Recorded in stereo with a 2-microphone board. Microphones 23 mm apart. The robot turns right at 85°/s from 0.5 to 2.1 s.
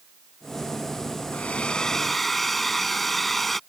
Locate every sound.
1.3 s a hair dryer: 110° left; by 3.6 s 175° left